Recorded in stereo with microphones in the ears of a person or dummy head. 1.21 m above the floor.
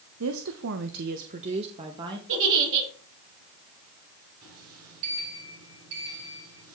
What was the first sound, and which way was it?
A woman speaking, 80° right.